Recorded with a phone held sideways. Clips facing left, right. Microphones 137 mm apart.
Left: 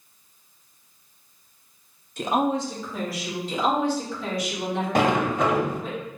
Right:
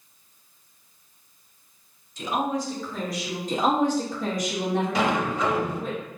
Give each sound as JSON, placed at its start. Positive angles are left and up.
{"t": 2.2, "sound": "a woman speaking", "side_deg": 60, "distance_m": 0.6}
{"t": 3.5, "sound": "a woman speaking", "side_deg": -45, "distance_m": 1.1}
{"t": 5.0, "sound": "a sliding door", "side_deg": 55, "distance_m": 0.5}